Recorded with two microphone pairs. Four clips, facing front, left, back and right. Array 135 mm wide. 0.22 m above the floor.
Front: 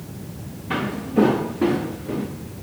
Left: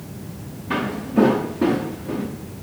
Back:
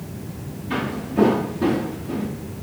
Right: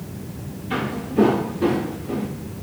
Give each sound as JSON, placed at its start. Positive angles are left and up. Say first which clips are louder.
{"t": 0.7, "sound": "footsteps", "louder": "left 2 dB, front 2 dB", "azimuth_deg": 55, "distance_m": 4.0}